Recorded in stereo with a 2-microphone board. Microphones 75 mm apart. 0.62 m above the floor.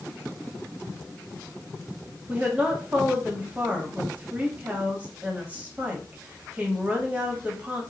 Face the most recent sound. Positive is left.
turn(degrees=-20)  # may be behind; listen again after turning